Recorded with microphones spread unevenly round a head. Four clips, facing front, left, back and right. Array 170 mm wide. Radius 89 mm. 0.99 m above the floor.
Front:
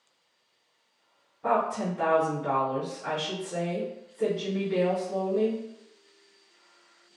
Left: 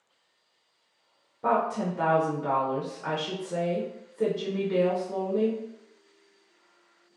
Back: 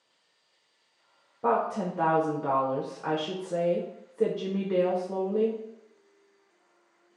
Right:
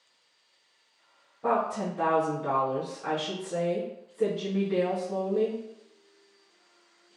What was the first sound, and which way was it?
A woman speaking, 165° left.